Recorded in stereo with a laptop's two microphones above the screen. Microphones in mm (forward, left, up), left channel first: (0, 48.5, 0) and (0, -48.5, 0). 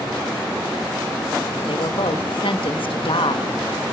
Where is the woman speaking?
70° left (ahead or behind), 1.2 m.